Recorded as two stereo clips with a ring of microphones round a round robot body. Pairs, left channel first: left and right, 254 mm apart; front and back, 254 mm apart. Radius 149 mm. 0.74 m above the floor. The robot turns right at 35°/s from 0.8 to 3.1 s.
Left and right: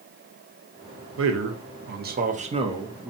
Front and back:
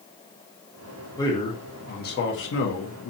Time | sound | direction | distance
1.2 | a man speaking | 75° right | 0.6 m